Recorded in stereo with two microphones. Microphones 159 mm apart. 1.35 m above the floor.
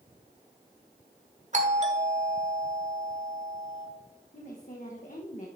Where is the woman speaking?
50° left (ahead or behind), 1.1 m.